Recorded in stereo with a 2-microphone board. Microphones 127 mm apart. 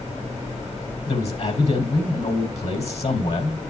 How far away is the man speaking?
About 4 m.